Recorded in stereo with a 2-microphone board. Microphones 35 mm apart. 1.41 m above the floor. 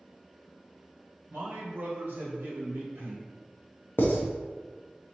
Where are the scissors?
No scissors in this recording.